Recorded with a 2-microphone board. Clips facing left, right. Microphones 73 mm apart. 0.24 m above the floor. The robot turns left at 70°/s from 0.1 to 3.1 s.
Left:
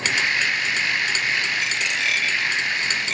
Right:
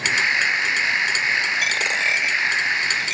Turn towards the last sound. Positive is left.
turn(degrees=40)  # may be behind; listen again after turning